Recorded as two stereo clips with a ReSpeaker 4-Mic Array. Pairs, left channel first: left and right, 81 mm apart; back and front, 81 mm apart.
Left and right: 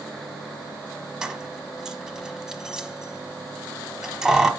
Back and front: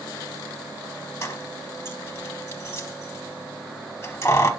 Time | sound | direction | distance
1.2 | keys jangling | 165° right | 0.8 m